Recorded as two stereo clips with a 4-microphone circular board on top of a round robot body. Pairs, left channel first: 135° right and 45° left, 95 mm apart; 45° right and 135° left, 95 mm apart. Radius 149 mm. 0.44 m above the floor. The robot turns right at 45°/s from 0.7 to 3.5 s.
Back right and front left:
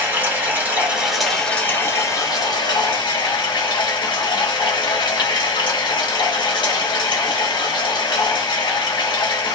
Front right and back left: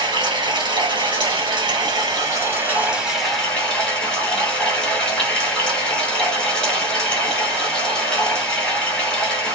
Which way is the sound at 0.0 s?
110° left.